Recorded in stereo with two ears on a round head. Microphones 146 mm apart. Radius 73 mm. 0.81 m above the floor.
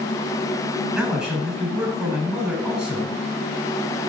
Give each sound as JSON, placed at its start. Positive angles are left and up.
{"t": 0.9, "sound": "a man speaking", "side_deg": -5, "distance_m": 7.5}